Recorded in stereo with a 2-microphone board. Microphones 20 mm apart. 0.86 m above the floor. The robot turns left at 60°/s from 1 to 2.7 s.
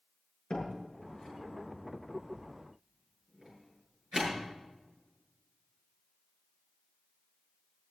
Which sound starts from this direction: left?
A door slam, at 0.5 s.